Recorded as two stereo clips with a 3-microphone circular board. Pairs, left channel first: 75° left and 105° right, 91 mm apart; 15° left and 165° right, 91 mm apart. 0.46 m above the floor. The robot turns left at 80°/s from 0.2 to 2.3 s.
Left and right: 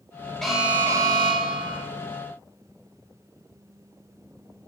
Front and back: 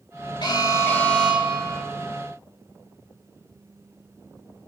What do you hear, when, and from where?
0.4 s an alarm: 10° right, 1.6 m; by 1.8 s 125° right, 1.6 m